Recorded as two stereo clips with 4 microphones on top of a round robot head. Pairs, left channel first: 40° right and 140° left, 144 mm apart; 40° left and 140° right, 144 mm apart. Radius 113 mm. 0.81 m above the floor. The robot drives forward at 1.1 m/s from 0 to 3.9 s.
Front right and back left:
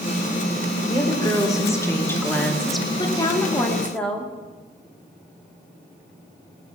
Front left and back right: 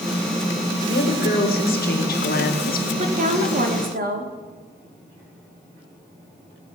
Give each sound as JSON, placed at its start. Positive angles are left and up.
{"t": 0.9, "sound": "a woman speaking", "azimuth_deg": 20, "distance_m": 3.5}
{"t": 3.0, "sound": "a woman speaking", "azimuth_deg": -100, "distance_m": 2.0}